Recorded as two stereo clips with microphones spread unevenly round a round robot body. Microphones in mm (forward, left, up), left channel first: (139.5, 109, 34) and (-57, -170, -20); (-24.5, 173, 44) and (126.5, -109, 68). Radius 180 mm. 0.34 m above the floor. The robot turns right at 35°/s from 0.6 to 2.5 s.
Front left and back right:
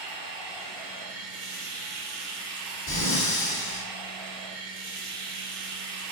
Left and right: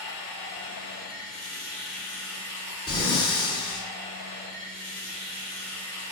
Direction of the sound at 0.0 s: 155° left.